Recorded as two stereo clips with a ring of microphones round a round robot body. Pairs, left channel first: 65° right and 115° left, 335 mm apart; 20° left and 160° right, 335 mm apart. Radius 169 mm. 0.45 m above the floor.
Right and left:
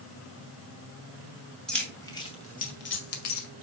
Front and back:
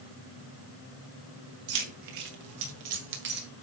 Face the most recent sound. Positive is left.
turn(degrees=-95)